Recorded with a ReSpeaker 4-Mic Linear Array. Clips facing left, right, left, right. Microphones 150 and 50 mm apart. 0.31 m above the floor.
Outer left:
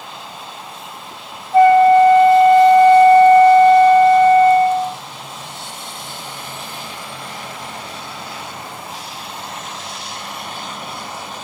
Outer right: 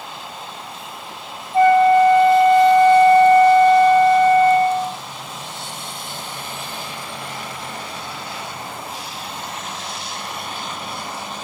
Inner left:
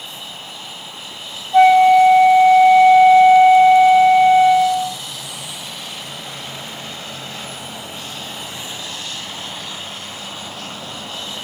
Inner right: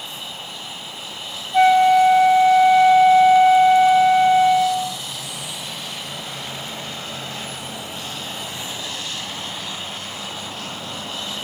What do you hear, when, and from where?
1.5 s a flute: 75° left (ahead or behind), 3.5 m